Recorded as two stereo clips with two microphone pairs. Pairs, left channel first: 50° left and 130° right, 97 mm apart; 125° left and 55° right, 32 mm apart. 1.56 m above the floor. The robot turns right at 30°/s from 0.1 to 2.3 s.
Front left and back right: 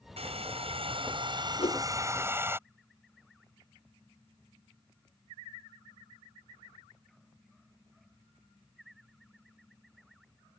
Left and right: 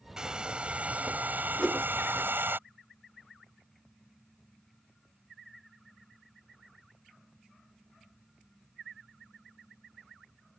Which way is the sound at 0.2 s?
125° right.